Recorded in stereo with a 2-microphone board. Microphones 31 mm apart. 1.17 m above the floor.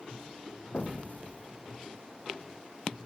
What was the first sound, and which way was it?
An explosion, 50° left (ahead or behind).